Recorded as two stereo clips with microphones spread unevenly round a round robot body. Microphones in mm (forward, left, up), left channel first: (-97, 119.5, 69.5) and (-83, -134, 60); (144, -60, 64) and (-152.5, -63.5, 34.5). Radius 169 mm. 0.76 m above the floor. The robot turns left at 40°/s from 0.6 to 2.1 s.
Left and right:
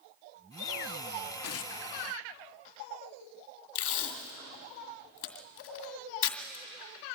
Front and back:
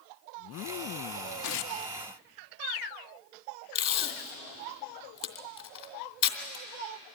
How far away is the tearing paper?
About 0.5 m.